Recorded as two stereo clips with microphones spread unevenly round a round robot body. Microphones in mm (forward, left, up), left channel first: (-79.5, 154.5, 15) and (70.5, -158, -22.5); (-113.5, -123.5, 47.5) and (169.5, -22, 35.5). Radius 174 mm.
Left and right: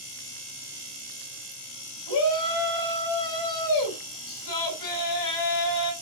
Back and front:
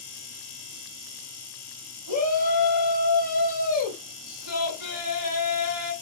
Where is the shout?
135° left, 6.5 m.